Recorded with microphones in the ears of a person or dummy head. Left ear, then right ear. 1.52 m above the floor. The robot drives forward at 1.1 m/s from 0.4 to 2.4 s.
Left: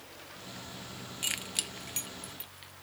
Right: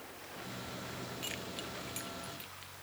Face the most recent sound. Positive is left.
turn(degrees=15)  # may be behind; listen again after turning